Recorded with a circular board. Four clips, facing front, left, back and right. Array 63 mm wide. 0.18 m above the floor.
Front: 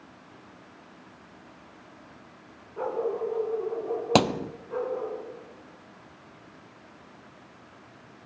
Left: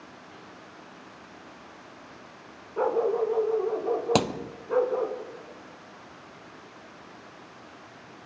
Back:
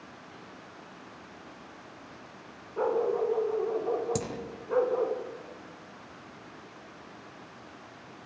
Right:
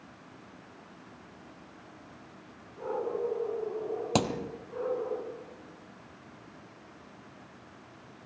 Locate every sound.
2.8 s a dog barking: 105° left, 6 m; by 5.2 s 120° left, 6.5 m
4.2 s a thud: 15° left, 1.0 m